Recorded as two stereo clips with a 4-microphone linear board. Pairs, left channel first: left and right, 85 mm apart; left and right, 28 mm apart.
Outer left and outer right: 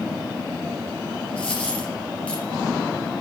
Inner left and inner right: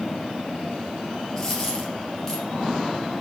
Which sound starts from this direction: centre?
A dropped coin, at 1.4 s.